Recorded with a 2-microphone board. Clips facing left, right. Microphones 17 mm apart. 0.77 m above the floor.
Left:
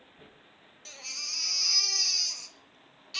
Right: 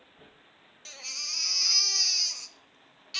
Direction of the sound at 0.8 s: 10° right (ahead or behind).